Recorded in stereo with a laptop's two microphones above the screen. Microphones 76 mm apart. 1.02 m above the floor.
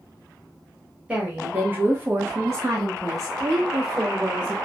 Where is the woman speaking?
15° right (ahead or behind), 1.2 m; by 4.5 s 40° right (ahead or behind), 1.4 m.